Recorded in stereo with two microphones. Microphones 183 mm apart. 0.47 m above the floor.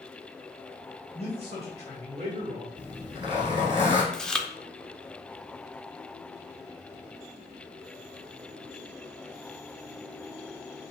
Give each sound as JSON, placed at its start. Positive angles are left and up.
{"t": 1.1, "sound": "a man speaking", "side_deg": -35, "distance_m": 2.5}
{"t": 2.8, "sound": "a zipper", "side_deg": -25, "distance_m": 2.5}
{"t": 4.1, "sound": "chewing", "side_deg": 5, "distance_m": 0.6}